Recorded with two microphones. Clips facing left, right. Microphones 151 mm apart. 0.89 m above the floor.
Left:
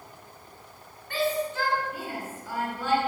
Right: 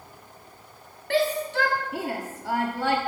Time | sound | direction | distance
1.1 | a shout | 80° right | 1.4 m